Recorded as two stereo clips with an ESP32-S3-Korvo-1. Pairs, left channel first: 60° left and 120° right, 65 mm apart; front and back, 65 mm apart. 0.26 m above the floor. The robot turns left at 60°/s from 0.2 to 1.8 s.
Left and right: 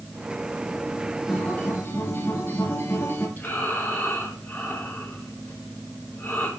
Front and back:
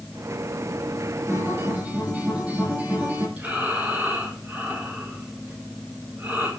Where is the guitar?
145° left, 5.5 m; by 3.3 s 110° left, 5.5 m.